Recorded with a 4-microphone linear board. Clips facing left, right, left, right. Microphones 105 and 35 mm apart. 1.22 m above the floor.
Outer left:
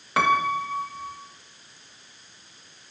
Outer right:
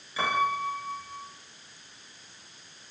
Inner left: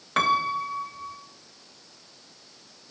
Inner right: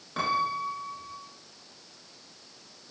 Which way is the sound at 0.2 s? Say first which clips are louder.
Outer left 5 dB, inner left 5 dB; 65° left (ahead or behind).